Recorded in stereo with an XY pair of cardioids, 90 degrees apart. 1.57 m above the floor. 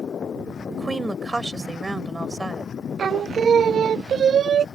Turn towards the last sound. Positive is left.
turn(degrees=-55)